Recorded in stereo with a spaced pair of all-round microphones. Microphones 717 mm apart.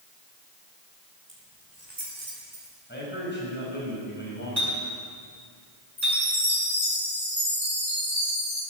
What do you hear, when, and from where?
1.3 s keys jangling: 80° right, 5 m; by 2.8 s 85° right, 6 m
2.9 s a man speaking: 15° left (ahead or behind), 6.5 m
4.6 s a clink: 75° right (ahead or behind), 8 m
6.0 s a chime: 75° right (ahead or behind), 5.5 m